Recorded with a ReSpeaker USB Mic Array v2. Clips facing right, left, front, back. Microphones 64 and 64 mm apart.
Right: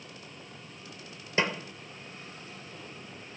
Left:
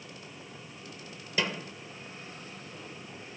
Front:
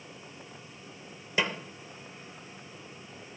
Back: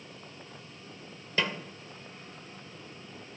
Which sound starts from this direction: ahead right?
A snare drum, at 1.4 s.